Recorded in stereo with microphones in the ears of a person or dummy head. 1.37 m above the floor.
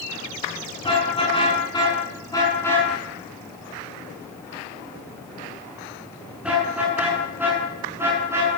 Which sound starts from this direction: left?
A car horn, at 0.8 s.